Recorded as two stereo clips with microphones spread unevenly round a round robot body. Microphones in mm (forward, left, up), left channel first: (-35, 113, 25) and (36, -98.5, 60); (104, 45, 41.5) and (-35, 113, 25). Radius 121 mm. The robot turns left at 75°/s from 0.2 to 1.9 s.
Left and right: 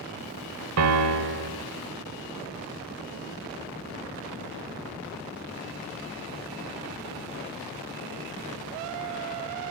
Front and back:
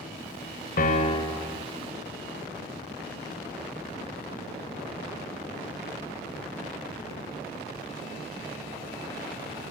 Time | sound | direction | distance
0.8 | a piano | 65° right | 2 m